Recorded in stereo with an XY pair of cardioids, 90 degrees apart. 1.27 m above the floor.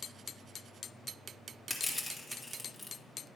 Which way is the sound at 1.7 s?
15° left.